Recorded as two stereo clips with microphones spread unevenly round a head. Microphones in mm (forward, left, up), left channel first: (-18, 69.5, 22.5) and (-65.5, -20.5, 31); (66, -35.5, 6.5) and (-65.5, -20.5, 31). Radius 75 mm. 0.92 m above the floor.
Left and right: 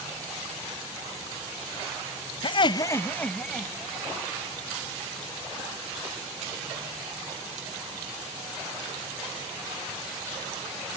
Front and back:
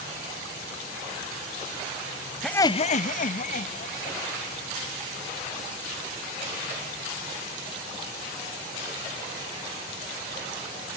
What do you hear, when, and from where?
2.4 s laughter: 75° left, 0.5 m; by 4.2 s 30° right, 2 m